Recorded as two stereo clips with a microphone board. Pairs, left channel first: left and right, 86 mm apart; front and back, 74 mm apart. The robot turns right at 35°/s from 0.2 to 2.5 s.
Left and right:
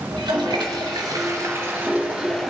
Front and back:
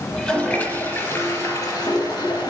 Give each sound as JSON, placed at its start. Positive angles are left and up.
{"t": 0.1, "sound": "a toilet flushing", "azimuth_deg": -80, "distance_m": 3.0}